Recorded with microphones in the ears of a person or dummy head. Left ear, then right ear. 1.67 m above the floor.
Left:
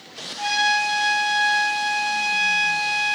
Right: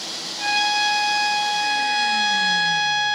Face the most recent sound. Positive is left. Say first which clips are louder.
# even
turn(degrees=15)  # may be behind; listen again after turning